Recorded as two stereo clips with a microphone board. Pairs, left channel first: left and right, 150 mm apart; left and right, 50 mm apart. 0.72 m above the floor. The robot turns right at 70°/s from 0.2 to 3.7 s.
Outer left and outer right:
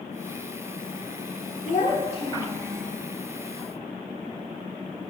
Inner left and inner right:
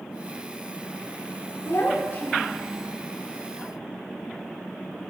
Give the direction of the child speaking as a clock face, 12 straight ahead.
9 o'clock.